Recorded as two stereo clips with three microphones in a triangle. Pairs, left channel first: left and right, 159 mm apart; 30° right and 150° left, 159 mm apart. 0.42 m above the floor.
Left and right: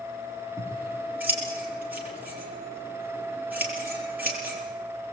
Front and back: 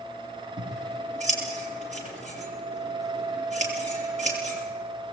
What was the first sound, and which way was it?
Scissors, 170° right.